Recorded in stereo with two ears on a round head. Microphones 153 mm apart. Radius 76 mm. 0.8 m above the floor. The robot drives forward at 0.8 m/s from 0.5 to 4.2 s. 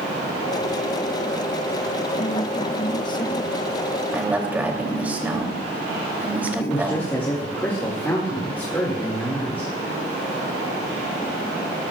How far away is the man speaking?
About 2 m.